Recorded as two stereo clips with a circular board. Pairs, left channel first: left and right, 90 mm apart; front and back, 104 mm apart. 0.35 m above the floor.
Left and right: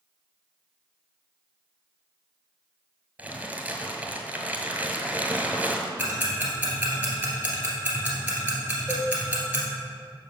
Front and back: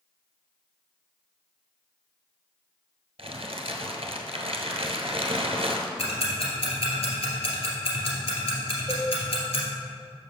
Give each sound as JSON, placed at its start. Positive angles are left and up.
{"t": 3.2, "sound": "crumpling", "azimuth_deg": -165, "distance_m": 1.0}
{"t": 6.0, "sound": "ticking", "azimuth_deg": -20, "distance_m": 2.0}
{"t": 8.9, "sound": "a cowbell", "azimuth_deg": -170, "distance_m": 1.1}